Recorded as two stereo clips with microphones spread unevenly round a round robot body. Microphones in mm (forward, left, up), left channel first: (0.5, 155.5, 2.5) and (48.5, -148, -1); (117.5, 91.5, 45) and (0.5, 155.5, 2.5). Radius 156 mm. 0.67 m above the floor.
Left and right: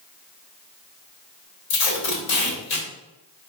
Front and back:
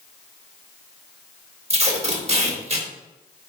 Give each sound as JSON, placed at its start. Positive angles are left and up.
{"t": 1.7, "sound": "tape being pulled", "azimuth_deg": 120, "distance_m": 2.0}